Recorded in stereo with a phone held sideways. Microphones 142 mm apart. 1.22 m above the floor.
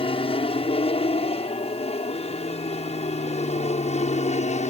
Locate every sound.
0.0 s an aircraft: 40° left (ahead or behind); by 4.7 s 55° left (ahead or behind)